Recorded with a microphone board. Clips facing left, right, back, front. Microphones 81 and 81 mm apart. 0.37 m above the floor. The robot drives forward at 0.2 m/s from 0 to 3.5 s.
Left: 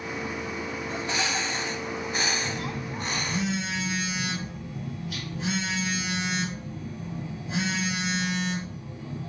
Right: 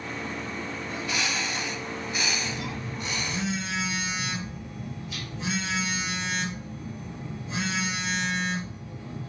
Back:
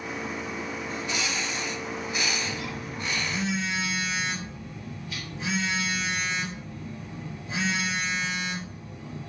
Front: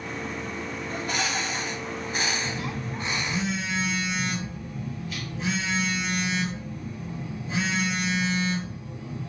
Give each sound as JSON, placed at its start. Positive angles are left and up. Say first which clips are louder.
{"t": 0.9, "sound": "a bird", "louder": "left 1 dB, front 5 dB", "azimuth_deg": 35, "distance_m": 0.9}
{"t": 2.4, "sound": "a phone buzzing", "louder": "left 1 dB, front 2 dB", "azimuth_deg": 95, "distance_m": 2.5}